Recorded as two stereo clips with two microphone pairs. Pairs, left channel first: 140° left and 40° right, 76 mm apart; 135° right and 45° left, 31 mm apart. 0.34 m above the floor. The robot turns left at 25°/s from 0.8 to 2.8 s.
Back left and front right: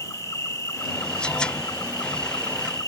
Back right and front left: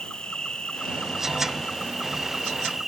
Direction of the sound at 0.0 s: 175° left.